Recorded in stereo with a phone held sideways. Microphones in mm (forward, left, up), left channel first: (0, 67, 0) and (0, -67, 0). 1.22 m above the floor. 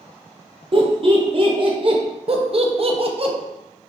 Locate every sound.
0.7 s laughter: 40° right (ahead or behind), 0.7 m
2.3 s laughter: 45° right (ahead or behind), 0.5 m